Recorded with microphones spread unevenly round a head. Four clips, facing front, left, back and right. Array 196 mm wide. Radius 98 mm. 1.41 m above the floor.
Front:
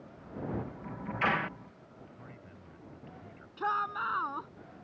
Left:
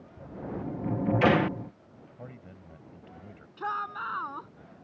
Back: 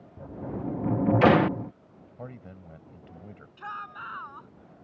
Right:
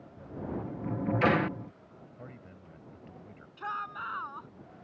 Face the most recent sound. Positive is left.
turn(degrees=35)